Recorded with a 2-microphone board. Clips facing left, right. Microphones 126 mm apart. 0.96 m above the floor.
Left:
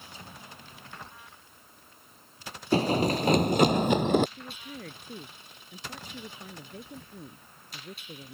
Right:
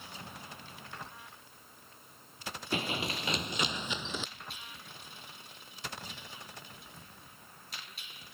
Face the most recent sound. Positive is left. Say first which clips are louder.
# left 8 dB
turn(degrees=65)  # may be behind; listen again after turning